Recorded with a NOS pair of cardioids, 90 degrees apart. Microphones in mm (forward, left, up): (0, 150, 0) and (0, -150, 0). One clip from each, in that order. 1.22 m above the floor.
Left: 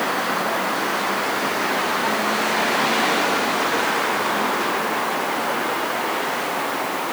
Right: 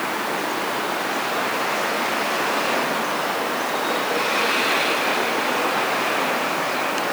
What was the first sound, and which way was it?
Only background noise.